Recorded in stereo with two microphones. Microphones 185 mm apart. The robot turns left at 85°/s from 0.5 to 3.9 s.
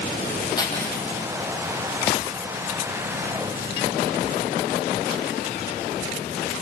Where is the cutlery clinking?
160° left, 5.5 m; by 1.1 s 115° left, 5.5 m.